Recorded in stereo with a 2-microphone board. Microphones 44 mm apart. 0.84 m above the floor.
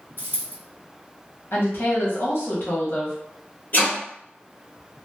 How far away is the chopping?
About 1.3 m.